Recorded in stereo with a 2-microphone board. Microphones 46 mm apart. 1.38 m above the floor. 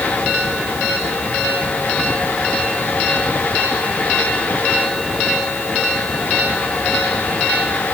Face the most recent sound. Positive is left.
No sound to turn to.